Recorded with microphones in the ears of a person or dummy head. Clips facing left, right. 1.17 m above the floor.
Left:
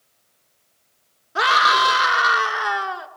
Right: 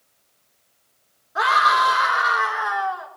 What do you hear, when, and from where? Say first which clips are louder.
1.4 s a scream: even; 40° left (ahead or behind), 3 m